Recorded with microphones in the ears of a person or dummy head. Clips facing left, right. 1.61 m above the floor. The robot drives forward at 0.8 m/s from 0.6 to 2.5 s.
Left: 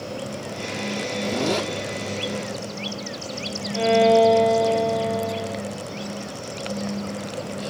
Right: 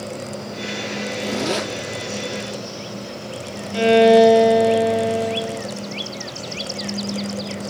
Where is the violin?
30° right (ahead or behind), 3 m.